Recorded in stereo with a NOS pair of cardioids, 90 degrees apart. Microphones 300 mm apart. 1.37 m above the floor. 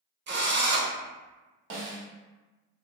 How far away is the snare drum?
About 0.7 m.